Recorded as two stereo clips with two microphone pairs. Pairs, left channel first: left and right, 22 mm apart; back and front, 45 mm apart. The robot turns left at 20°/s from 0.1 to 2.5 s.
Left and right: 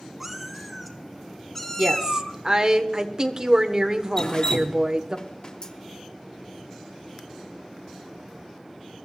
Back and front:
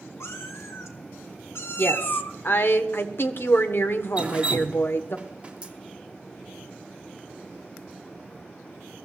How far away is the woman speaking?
About 1.6 m.